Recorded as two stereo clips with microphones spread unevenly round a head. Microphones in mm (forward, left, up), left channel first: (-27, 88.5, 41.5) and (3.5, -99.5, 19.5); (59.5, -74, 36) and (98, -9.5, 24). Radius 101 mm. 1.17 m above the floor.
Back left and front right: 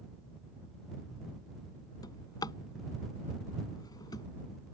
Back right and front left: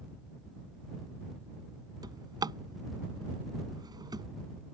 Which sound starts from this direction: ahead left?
A drawer, at 2.0 s.